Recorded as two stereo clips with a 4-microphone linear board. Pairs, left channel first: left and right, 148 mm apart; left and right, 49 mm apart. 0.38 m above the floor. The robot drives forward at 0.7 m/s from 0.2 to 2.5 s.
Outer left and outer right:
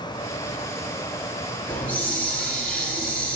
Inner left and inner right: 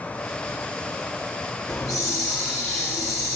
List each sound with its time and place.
1.7 s a hiss: 10° left (ahead or behind), 5 m